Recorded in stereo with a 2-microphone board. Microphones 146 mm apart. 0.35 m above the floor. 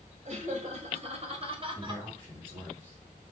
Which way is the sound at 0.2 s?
50° right (ahead or behind).